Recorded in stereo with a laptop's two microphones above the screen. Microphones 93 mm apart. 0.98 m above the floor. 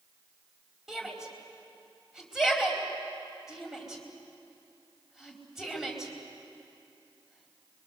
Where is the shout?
5° right (ahead or behind), 4.5 m.